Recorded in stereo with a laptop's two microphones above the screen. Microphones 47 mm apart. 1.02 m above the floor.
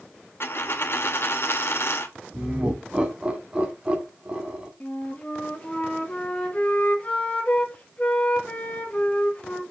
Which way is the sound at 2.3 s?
20° right (ahead or behind).